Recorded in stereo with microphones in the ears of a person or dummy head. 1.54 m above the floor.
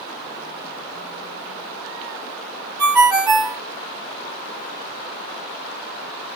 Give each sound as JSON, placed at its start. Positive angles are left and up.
{"t": 2.8, "sound": "a ringtone", "side_deg": -20, "distance_m": 1.7}